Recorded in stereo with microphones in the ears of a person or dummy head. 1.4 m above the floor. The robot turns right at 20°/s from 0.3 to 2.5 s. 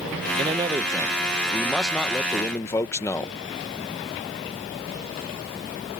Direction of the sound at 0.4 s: 25° right.